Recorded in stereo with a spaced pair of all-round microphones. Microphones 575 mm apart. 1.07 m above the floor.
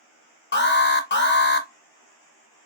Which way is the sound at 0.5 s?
20° left (ahead or behind).